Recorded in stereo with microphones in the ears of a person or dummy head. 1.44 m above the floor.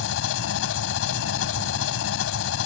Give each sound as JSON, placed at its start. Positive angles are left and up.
{"t": 0.0, "sound": "an engine running", "side_deg": 80}